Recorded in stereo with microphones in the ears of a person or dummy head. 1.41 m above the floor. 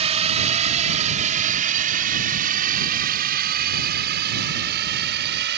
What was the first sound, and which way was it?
A drone, 30° right (ahead or behind).